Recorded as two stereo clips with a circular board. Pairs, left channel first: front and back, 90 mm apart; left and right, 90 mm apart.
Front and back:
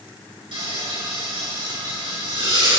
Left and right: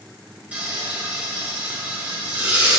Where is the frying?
165° right, 4 m.